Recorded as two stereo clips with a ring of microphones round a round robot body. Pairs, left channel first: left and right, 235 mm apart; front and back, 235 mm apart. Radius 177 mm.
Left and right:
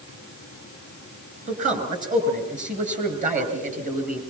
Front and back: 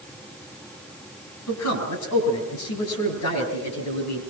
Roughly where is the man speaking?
Ahead right.